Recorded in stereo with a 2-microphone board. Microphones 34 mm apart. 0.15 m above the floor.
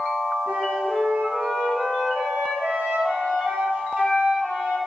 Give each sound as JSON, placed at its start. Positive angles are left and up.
{"t": 0.5, "sound": "a flute", "side_deg": -40, "distance_m": 2.5}